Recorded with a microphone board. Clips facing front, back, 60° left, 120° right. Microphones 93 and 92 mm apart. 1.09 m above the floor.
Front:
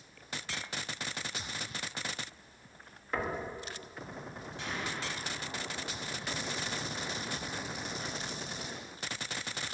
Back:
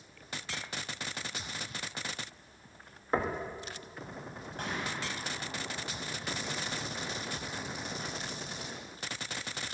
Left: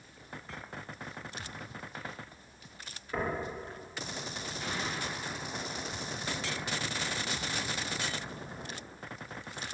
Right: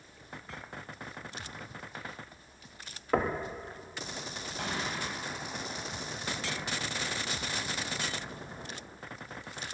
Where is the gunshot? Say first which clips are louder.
Back 2 dB, right 2 dB; 140° right, 4.5 m.